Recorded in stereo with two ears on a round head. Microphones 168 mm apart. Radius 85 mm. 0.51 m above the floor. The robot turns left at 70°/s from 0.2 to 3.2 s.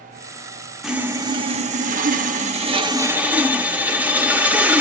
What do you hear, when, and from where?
0.8 s sawing: straight ahead, 0.6 m; by 4.8 s 165° right, 0.6 m